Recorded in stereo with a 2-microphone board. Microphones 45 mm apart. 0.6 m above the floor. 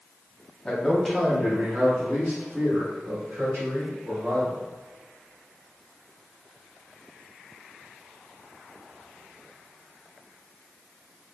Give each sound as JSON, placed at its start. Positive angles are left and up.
{"t": 0.7, "sound": "a man speaking", "side_deg": 25, "distance_m": 0.8}